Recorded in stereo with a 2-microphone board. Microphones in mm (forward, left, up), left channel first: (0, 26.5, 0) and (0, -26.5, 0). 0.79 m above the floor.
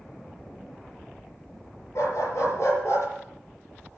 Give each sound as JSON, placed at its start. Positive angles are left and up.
{"t": 1.9, "sound": "a dog barking", "side_deg": 65, "distance_m": 7.0}